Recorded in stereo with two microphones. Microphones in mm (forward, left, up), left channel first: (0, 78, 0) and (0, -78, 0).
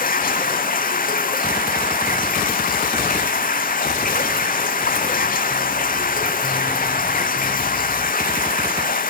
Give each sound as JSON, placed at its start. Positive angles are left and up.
{"t": 0.0, "sound": "running water", "side_deg": 65, "distance_m": 0.9}